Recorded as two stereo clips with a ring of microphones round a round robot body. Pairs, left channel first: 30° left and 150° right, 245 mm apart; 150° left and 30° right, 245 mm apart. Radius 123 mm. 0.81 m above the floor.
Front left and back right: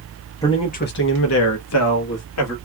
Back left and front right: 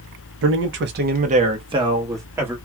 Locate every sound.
0.4 s a man speaking: 45° right, 0.7 m; by 2.5 s 50° left, 1.6 m